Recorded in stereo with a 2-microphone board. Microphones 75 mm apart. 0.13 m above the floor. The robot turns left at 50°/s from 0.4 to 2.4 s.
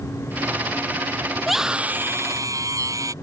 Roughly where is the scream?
Ahead.